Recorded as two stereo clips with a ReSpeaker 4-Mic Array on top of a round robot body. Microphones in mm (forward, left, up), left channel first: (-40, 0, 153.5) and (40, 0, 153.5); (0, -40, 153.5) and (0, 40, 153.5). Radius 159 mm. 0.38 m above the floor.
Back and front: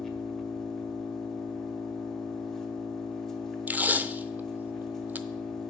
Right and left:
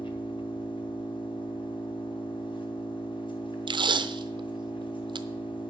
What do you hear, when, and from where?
0.0 s an engine running: 95° right, 1.7 m
3.7 s tape being pulled: 70° left, 0.7 m